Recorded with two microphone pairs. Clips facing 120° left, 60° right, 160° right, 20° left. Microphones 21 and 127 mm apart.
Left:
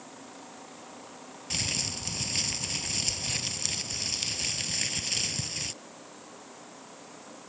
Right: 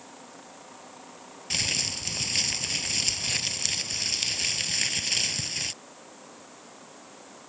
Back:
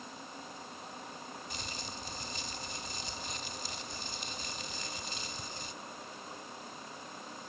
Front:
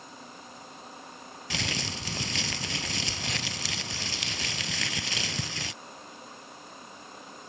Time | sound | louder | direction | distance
1.5 | crumpling | right 4 dB, front 8 dB | 15° left | ?